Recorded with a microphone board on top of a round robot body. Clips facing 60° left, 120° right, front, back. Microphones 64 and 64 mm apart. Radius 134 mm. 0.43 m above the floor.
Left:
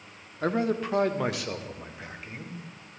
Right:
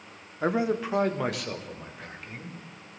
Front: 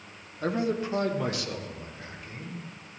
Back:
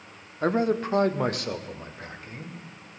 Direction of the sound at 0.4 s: 170° left.